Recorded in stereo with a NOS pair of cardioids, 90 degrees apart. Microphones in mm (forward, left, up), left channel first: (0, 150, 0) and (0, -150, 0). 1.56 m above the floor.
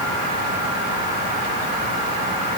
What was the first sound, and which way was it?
Only background noise.